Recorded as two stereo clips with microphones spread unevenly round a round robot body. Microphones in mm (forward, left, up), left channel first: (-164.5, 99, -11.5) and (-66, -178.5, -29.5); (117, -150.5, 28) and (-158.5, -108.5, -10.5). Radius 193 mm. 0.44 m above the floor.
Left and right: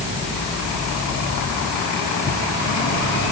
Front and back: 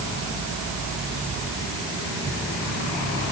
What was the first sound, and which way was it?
Only background noise.